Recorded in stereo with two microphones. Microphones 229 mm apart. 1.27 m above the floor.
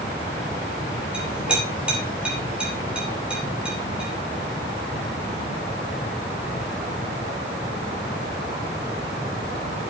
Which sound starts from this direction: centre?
A clink, at 1.1 s.